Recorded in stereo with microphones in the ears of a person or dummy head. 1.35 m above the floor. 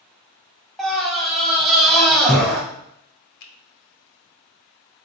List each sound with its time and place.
0.8 s a scream: centre (ahead or behind), 1.0 m
3.4 s a finger snap: 70° left (ahead or behind), 1.0 m